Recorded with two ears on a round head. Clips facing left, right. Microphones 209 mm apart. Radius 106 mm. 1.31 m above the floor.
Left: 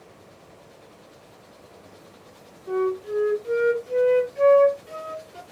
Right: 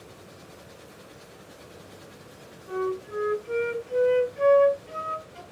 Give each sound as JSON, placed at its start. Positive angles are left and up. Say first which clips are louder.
{"t": 2.7, "sound": "a flute", "louder": "left 5 dB", "side_deg": 65, "distance_m": 1.4}